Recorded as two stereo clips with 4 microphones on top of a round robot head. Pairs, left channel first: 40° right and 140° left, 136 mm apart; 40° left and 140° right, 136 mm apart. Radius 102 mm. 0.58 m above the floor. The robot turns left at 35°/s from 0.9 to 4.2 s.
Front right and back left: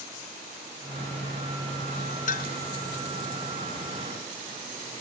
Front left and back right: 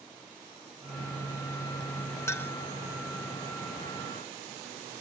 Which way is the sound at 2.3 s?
30° right.